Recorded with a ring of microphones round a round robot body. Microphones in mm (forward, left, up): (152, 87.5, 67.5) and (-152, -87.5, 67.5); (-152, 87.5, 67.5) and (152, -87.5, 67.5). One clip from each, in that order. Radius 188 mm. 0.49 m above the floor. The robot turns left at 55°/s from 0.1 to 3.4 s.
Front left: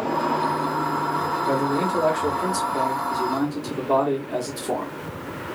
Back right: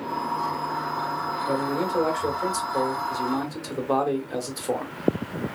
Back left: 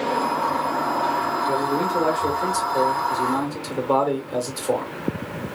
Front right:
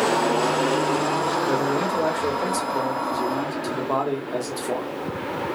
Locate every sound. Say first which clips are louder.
1.5 s a man speaking: front left 2 dB, even; 15° right, 1.1 m; by 4.9 s 125° right, 1.1 m